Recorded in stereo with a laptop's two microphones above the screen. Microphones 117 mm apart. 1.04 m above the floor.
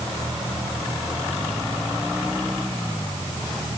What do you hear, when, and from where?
Only background noise.